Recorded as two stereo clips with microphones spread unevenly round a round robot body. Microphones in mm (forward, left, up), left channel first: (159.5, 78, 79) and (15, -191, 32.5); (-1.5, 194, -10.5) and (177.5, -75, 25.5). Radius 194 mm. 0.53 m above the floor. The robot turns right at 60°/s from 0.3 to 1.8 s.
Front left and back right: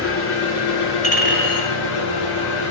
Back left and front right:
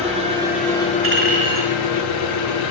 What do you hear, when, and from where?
0.0 s an engine running: 15° left, 8 m; by 2.7 s 105° left, 8 m
1.0 s a clink: 10° right, 7.5 m; by 1.8 s 35° left, 7.5 m